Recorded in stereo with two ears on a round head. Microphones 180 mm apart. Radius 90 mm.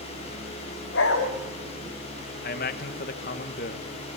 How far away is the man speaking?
About 1.6 m.